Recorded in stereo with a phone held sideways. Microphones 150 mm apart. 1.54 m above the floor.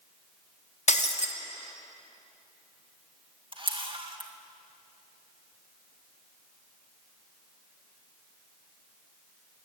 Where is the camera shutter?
35° right (ahead or behind), 2 m.